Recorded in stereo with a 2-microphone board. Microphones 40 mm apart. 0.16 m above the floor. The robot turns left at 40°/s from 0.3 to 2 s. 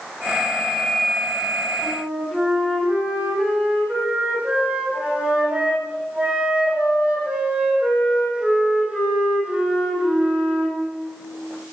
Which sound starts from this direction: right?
A flute, at 1.8 s.